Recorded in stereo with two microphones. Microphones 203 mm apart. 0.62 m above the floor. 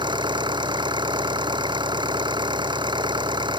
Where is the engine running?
20° right (ahead or behind).